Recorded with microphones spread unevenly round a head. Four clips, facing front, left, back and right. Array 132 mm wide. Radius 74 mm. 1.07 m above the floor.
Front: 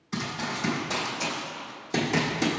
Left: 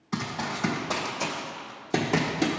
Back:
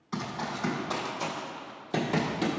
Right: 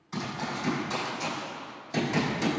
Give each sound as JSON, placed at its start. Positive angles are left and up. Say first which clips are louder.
{"t": 0.1, "sound": "running footsteps", "louder": "left 2 dB, front 2 dB", "azimuth_deg": 85, "distance_m": 2.5}